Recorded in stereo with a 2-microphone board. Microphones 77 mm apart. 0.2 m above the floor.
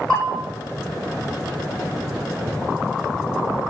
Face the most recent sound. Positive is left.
turn(degrees=10)  # may be behind; listen again after turning